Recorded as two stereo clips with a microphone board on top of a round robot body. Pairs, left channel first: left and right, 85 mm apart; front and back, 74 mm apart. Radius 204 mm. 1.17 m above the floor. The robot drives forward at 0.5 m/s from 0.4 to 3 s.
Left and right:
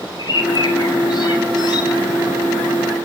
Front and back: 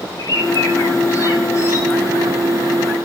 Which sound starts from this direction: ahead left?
A bird, at 0.2 s.